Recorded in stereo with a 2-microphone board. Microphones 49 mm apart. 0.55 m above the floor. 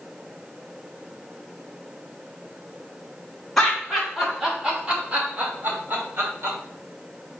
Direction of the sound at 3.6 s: 5° left (ahead or behind).